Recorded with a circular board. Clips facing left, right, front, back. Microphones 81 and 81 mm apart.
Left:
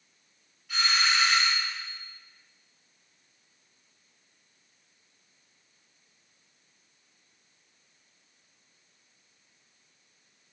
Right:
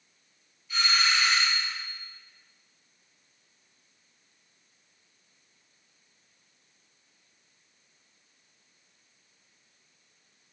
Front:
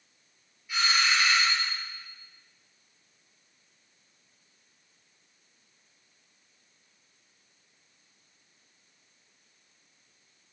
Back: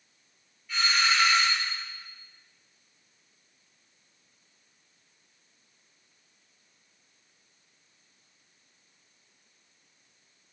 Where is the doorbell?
80° left, 5 m.